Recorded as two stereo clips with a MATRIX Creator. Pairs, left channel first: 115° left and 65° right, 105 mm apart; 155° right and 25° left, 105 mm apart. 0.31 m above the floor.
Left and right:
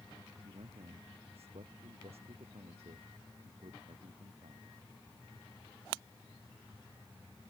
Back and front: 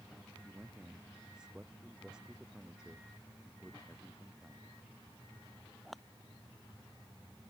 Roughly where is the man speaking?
Ahead right.